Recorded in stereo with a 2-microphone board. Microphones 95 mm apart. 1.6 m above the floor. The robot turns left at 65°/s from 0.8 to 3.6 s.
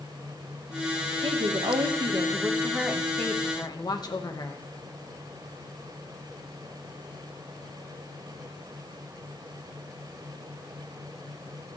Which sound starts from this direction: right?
A woman speaking, at 1.2 s.